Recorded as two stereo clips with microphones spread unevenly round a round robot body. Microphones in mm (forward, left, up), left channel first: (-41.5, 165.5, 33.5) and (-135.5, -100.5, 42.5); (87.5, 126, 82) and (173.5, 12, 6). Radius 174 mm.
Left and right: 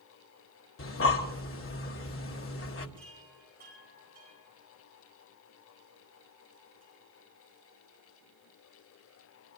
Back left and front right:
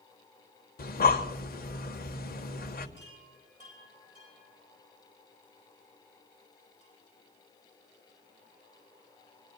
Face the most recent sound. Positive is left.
turn(degrees=-45)